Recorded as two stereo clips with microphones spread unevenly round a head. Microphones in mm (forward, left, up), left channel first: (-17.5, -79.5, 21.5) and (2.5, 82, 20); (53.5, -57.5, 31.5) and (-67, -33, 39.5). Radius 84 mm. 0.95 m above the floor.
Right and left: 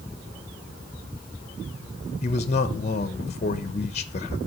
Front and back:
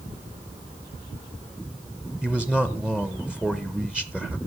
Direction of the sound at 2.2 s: 110° right.